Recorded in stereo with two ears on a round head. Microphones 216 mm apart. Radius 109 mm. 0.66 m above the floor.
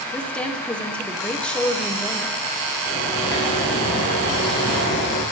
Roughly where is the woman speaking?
Centre.